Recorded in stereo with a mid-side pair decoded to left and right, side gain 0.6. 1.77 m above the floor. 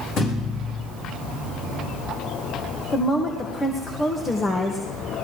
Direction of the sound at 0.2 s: 55° left.